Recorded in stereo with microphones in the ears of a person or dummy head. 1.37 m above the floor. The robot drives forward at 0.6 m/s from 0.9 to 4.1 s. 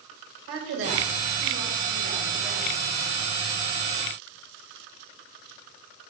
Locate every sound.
0.5 s a woman speaking: 80° right, 6.5 m; by 2.9 s 90° right, 6 m